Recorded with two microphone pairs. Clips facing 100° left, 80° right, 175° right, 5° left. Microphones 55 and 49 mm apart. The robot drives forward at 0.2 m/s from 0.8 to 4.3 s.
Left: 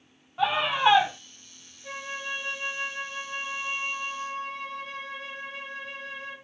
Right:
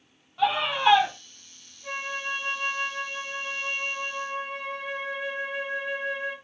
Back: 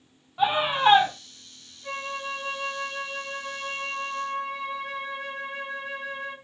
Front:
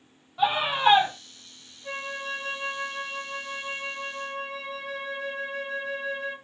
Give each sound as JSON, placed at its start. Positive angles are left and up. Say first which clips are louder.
{"t": 0.4, "sound": "a scream", "louder": "even, back 1 dB", "azimuth_deg": 115, "distance_m": 1.0}
{"t": 1.8, "sound": "a flute", "louder": "right 3 dB, back 1 dB", "azimuth_deg": -120, "distance_m": 0.9}